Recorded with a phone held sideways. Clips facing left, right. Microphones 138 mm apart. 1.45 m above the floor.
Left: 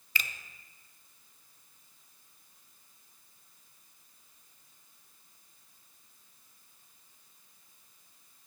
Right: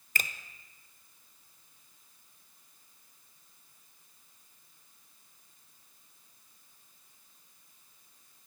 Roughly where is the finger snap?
Right.